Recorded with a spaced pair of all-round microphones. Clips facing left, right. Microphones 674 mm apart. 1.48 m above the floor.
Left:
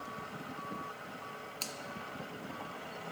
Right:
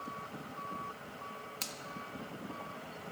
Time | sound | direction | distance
1.6 | a finger snap | 45° right (ahead or behind) | 1.6 m